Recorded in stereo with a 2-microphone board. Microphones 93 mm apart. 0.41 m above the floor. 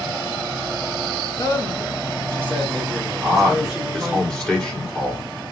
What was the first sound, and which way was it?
A man speaking, 45° left (ahead or behind).